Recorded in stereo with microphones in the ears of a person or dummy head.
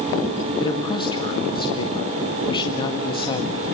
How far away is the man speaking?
About 1.7 m.